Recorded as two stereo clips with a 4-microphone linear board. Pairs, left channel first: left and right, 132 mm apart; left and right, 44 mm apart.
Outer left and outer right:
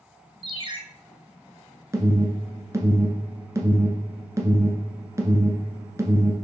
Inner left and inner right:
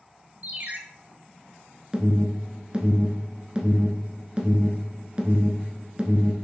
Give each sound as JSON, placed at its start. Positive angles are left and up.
{"t": 0.4, "sound": "a ringtone", "side_deg": -40, "distance_m": 0.8}
{"t": 1.9, "sound": "an alarm", "side_deg": -25, "distance_m": 1.0}